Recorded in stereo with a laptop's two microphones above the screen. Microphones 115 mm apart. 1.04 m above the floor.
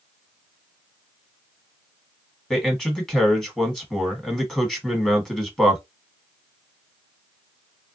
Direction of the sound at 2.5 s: 5° left (ahead or behind).